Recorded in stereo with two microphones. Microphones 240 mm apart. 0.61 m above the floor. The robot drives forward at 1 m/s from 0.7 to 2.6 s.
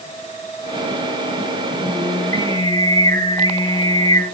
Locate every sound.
1.8 s singing: 65° left (ahead or behind), 6 m; by 4.2 s 75° left (ahead or behind), 5.5 m